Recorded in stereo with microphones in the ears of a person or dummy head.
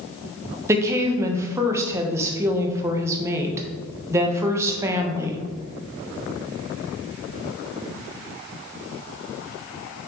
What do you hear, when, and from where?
0.7 s a woman speaking: 20° right (ahead or behind), 1.1 m